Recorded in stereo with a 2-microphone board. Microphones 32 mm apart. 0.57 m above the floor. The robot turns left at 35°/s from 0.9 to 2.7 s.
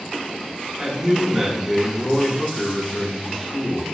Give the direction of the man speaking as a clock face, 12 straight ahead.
5 o'clock.